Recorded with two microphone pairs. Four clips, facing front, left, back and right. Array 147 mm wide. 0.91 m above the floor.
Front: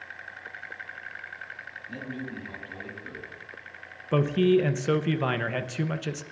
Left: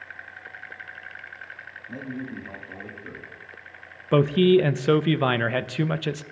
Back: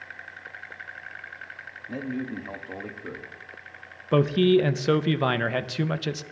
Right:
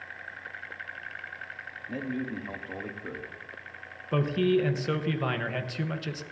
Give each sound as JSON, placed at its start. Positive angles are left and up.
{"t": 1.9, "sound": "a man speaking", "azimuth_deg": -155, "distance_m": 1.6}
{"t": 4.1, "sound": "a man speaking", "azimuth_deg": 115, "distance_m": 0.5}